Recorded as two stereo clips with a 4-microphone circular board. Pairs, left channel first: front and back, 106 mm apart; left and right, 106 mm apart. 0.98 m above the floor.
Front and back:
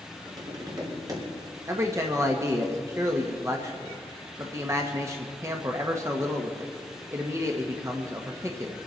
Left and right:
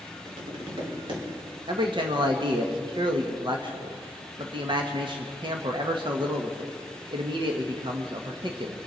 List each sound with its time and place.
0.2 s tapping: 130° right, 3.5 m
1.7 s a man speaking: 120° right, 1.3 m